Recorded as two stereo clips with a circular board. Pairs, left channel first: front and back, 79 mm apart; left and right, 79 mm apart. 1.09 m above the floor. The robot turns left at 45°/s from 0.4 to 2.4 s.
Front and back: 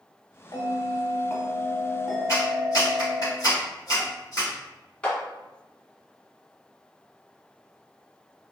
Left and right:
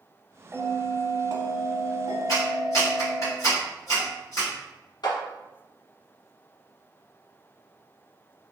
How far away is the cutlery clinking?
No cutlery clinking in this recording.